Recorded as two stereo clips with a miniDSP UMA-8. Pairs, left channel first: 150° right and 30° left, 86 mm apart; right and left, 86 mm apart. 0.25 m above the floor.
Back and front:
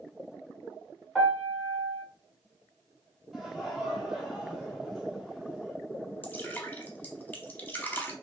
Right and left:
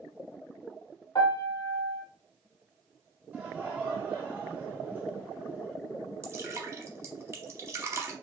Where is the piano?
50° right, 1.3 m.